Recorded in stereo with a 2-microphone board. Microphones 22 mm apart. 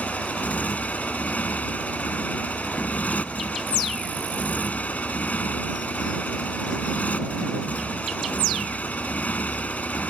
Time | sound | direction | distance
0.0 | a motorcycle | 75° left (ahead or behind) | ?